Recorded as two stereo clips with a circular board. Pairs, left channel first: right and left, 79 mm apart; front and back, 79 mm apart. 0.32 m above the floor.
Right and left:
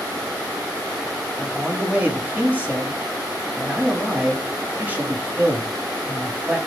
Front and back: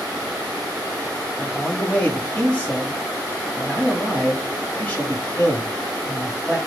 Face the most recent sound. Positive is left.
turn(degrees=45)